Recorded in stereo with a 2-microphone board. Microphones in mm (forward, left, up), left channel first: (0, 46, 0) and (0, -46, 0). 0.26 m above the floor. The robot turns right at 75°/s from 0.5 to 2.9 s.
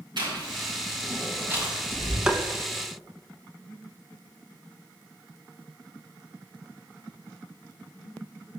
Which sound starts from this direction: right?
Chewing, at 0.2 s.